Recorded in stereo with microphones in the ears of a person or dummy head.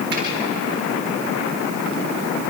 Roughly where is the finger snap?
Right.